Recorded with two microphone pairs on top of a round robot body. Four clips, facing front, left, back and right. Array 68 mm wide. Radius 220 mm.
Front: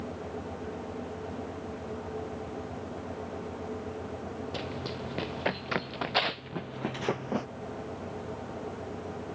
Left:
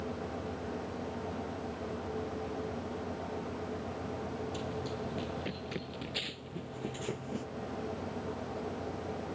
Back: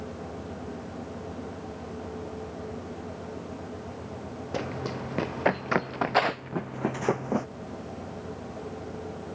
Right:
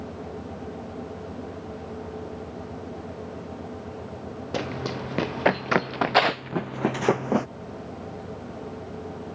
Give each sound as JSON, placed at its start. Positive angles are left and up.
{"t": 4.5, "sound": "running footsteps", "azimuth_deg": -125}